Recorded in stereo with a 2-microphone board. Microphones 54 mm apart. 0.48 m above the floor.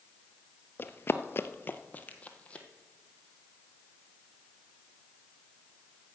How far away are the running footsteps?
About 0.7 m.